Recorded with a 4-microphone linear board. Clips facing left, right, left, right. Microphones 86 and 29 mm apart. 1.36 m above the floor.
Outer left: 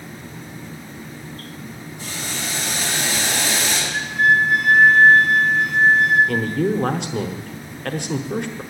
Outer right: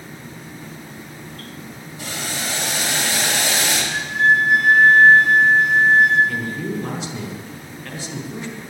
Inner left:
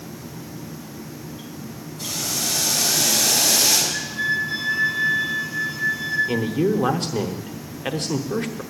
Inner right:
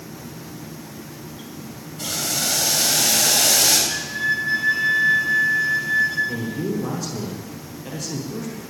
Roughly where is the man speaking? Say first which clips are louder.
Outer left 5 dB, inner left 5 dB; left.